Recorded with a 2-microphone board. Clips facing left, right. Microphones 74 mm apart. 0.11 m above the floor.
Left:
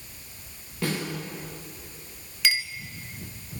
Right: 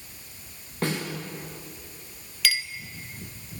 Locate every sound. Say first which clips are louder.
0.8 s a snare drum: right 1 dB; 45° right (ahead or behind), 8.5 m
2.4 s a clink: left 1 dB; 25° left (ahead or behind), 1.1 m